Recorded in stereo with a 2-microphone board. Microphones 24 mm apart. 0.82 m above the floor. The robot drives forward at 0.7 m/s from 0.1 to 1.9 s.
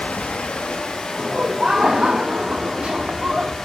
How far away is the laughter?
About 1.8 m.